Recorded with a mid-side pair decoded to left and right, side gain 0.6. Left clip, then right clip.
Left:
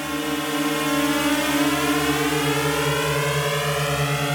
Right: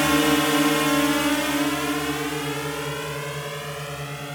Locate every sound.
0.0 s a drone: 40° right; by 4.3 s 50° left